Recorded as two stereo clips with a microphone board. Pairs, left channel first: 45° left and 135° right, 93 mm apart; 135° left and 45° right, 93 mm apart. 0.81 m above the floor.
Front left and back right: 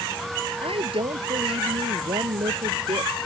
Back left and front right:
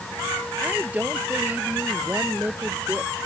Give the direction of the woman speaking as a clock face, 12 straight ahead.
4 o'clock.